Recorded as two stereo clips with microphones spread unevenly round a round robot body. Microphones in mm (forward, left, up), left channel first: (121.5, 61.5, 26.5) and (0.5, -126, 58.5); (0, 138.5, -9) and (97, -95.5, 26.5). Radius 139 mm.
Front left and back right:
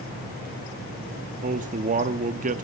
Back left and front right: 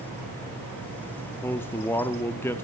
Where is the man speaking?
175° right, 0.8 m.